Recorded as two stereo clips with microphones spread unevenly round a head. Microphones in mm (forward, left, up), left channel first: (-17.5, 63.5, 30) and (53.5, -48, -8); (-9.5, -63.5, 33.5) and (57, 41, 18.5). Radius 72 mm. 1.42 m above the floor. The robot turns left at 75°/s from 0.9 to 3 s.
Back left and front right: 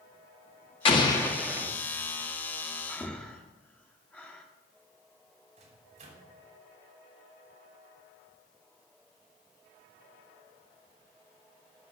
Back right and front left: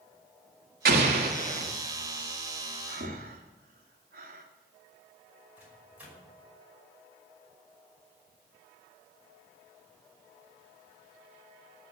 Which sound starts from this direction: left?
An explosion, at 0.8 s.